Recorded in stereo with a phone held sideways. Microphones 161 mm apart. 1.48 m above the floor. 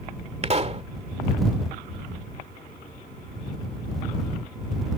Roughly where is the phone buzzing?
No phone buzzing in this recording.